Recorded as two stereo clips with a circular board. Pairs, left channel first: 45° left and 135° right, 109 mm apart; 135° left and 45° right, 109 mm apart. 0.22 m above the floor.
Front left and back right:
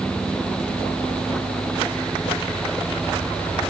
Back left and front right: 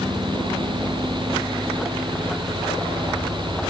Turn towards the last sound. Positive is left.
No sound to turn to.